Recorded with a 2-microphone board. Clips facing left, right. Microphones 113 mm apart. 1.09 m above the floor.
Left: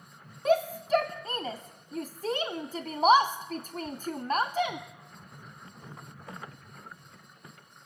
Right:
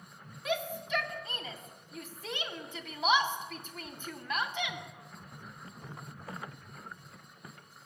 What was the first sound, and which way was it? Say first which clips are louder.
A shout: left 9 dB; 40° left (ahead or behind).